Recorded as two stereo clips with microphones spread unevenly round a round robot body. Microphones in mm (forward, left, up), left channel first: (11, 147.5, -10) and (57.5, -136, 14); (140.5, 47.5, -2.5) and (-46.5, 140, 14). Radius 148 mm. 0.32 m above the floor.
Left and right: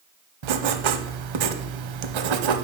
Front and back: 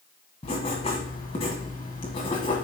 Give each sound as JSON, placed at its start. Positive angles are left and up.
{"t": 0.4, "sound": "writing", "azimuth_deg": -95, "distance_m": 0.7}